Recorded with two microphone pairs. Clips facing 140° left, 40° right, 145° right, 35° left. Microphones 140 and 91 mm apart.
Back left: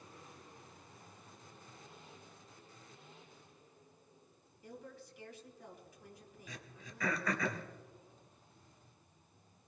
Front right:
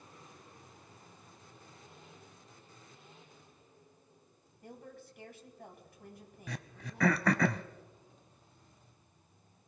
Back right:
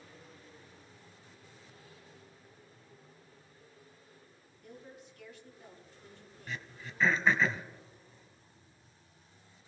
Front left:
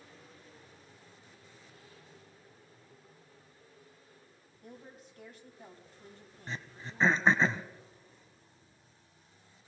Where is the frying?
No frying in this recording.